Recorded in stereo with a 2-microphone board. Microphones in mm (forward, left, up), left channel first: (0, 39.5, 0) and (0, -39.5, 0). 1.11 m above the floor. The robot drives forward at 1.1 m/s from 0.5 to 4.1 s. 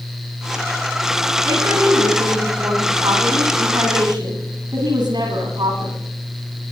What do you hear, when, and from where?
1.4 s a woman speaking: 50° right (ahead or behind), 9.5 m; by 6.0 s 70° right (ahead or behind), 8 m